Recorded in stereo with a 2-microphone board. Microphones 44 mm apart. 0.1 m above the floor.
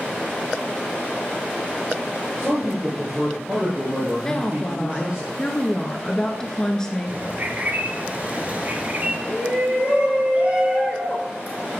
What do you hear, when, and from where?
2.4 s a man speaking: 25° right (ahead or behind), 2.5 m
4.2 s a woman speaking: 15° left (ahead or behind), 1.2 m
7.1 s a bird: 40° right (ahead or behind), 0.9 m
9.3 s a shout: 30° right (ahead or behind), 1.9 m